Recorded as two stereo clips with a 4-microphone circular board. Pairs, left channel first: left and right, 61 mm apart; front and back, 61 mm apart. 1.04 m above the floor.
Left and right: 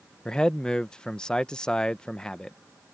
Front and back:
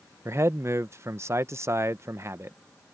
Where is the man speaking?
165° left.